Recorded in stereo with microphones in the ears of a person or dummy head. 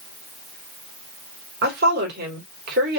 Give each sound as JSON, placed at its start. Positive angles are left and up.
{"t": 1.6, "sound": "a woman speaking", "side_deg": -60, "distance_m": 2.5}